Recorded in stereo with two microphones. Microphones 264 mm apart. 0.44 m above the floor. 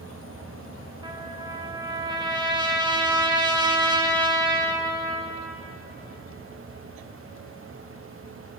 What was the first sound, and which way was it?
A trumpet, 15° right (ahead or behind).